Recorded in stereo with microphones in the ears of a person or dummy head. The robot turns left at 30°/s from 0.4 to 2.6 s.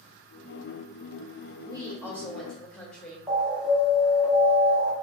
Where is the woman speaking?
20° right (ahead or behind), 1.4 m; by 3.2 s 5° left (ahead or behind), 1.4 m.